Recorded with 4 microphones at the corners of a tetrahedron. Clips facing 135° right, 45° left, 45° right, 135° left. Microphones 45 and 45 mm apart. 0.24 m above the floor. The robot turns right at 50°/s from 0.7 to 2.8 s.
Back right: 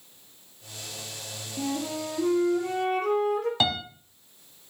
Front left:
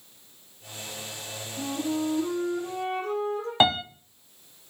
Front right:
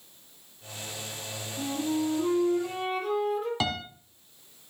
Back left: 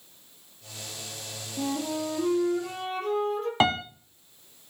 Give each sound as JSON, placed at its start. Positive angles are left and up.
{"t": 1.6, "sound": "a flute", "azimuth_deg": 170, "distance_m": 4.0}
{"t": 3.6, "sound": "a piano", "azimuth_deg": 95, "distance_m": 1.0}